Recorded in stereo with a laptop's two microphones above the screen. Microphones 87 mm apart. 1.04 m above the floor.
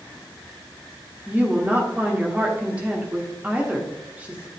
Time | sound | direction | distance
1.3 | a woman speaking | 15° right (ahead or behind) | 1.2 m